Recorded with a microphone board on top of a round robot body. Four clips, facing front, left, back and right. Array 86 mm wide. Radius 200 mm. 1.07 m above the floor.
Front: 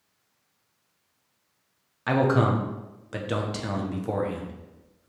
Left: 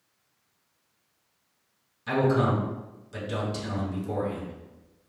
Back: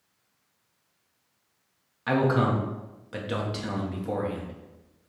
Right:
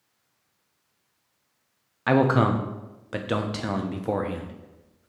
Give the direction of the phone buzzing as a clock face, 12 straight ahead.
No phone buzzing in this recording.